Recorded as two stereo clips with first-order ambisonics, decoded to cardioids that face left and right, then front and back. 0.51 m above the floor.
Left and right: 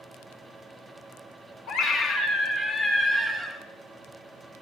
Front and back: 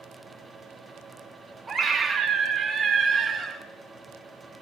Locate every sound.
1.7 s a scream: 110° left, 1.9 m; by 3.6 s 145° right, 1.4 m